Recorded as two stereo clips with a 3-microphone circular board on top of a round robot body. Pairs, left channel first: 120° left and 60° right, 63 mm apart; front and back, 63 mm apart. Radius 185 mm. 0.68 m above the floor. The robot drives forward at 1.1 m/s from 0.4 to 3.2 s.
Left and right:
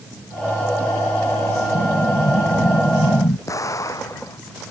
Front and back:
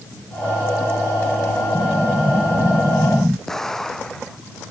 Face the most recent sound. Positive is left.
turn(degrees=80)